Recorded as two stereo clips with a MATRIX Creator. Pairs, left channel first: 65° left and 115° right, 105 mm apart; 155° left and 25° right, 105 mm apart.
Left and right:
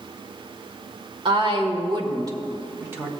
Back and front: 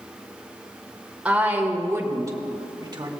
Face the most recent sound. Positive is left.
turn(degrees=-45)